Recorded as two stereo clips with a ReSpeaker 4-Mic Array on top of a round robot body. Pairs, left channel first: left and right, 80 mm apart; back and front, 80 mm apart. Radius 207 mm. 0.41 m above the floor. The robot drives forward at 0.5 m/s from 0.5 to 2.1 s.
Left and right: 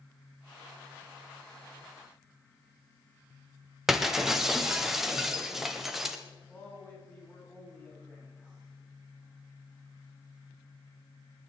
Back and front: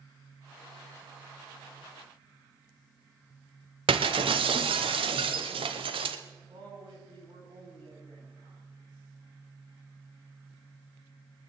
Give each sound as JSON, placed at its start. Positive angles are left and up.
{"t": 3.9, "sound": "breaking glass", "azimuth_deg": -5, "distance_m": 0.9}
{"t": 6.5, "sound": "a man speaking", "azimuth_deg": 20, "distance_m": 5.0}